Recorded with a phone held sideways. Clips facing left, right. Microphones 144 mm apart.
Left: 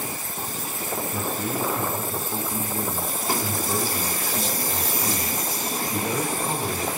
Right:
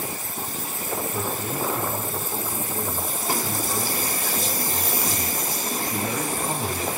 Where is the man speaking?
60° left (ahead or behind), 10 m; by 6.9 s centre (ahead or behind), 4 m.